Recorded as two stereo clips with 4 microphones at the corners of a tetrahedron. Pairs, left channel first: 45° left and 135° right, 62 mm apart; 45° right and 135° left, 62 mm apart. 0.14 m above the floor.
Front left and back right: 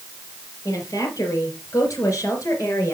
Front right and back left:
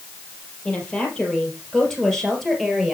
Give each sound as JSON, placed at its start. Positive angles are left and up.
{"t": 0.7, "sound": "a woman speaking", "azimuth_deg": 30, "distance_m": 3.5}